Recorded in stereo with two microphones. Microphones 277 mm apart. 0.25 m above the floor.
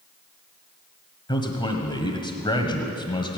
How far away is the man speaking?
About 1.3 m.